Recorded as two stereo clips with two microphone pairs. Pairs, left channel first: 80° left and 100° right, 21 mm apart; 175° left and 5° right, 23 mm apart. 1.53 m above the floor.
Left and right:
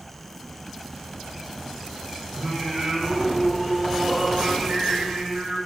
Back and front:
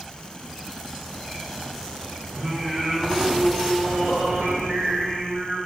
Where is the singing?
45° right, 2.5 m.